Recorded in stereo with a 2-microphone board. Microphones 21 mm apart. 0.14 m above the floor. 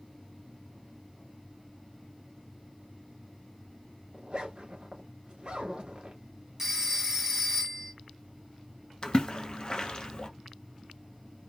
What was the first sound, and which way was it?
A zipper, 45° right (ahead or behind).